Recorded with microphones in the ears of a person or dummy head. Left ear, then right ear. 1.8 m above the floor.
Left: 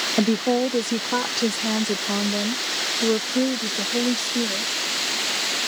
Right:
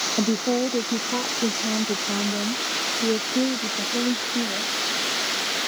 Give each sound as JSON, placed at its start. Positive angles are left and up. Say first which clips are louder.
{"t": 0.2, "sound": "a woman speaking", "louder": "left 4 dB", "side_deg": 60}